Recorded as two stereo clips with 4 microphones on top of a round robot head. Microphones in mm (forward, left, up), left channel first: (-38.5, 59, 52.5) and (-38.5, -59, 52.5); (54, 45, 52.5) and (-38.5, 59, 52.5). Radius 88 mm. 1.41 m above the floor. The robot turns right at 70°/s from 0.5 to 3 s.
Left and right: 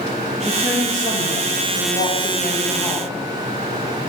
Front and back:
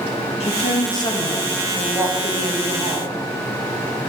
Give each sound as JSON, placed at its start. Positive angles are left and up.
{"t": 0.4, "sound": "a woman speaking", "azimuth_deg": 0, "distance_m": 1.6}